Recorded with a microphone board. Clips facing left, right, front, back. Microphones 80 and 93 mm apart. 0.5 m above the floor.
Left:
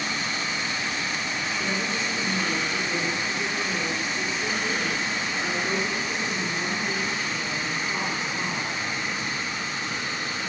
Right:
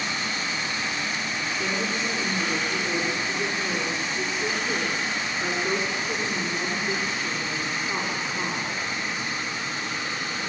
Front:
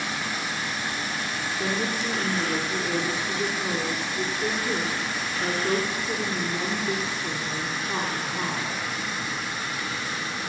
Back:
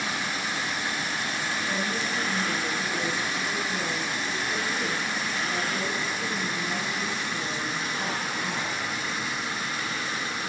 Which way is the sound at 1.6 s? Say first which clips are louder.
Right 2 dB, front 5 dB; 15° right.